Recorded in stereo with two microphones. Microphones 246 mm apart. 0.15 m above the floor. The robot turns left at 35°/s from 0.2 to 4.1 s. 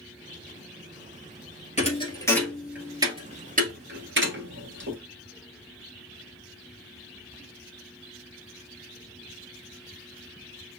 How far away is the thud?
About 1.1 m.